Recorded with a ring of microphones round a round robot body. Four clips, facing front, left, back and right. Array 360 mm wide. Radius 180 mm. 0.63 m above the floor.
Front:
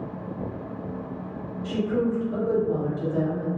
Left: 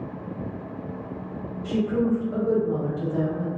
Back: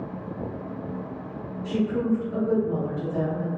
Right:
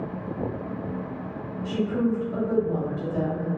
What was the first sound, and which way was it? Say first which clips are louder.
A woman speaking: left 2 dB, even; 45° left.